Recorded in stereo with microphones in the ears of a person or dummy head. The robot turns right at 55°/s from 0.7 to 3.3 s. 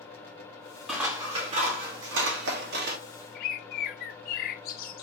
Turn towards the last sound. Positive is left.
turn(degrees=50)  # may be behind; listen again after turning